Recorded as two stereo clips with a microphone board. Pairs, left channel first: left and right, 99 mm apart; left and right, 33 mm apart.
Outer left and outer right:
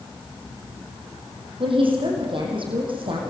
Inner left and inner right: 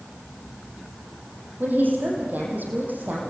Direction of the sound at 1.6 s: 60° right (ahead or behind).